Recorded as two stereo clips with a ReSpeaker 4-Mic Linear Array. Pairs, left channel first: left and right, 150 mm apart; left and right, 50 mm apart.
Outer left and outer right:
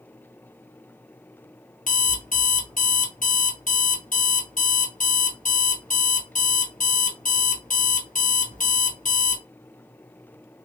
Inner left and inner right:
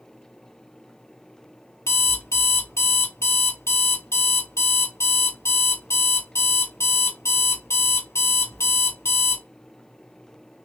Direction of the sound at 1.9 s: 60° left (ahead or behind).